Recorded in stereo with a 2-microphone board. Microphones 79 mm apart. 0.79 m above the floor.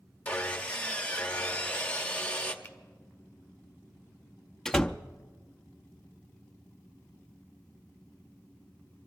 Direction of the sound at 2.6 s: 20° left (ahead or behind).